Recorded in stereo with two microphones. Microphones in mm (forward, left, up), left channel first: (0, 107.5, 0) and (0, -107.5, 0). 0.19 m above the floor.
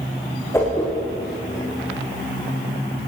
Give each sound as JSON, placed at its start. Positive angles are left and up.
{"t": 0.5, "sound": "a whoosh", "side_deg": 15, "distance_m": 8.5}